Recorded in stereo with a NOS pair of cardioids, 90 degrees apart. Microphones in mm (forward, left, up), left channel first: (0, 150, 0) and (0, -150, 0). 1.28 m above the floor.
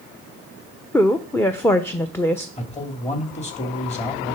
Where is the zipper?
I don't hear a zipper.